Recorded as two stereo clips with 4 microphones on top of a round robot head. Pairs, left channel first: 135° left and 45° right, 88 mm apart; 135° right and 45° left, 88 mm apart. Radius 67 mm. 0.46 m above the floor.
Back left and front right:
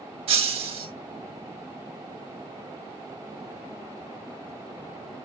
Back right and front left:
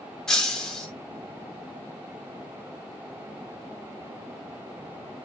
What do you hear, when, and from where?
0.3 s breaking glass: 50° right, 2 m